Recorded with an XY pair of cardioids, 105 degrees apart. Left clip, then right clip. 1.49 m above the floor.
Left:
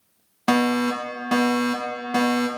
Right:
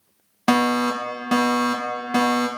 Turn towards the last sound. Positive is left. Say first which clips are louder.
# right 2 dB
turn(degrees=-15)